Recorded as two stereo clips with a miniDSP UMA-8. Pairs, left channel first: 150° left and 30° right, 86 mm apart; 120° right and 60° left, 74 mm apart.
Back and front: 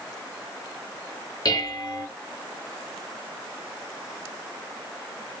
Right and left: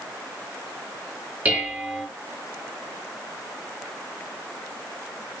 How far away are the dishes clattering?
About 1.7 m.